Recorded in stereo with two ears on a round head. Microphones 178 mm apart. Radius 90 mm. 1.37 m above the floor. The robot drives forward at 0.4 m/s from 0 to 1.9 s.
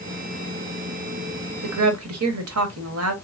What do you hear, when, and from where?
1.6 s a woman speaking: 80° right, 1.0 m; by 3.1 s 85° right, 1.0 m